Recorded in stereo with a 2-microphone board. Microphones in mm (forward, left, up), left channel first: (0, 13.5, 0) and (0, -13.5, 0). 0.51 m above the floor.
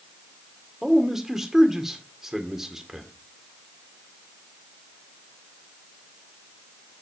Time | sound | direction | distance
0.8 | a man speaking | 15° right (ahead or behind) | 1.7 m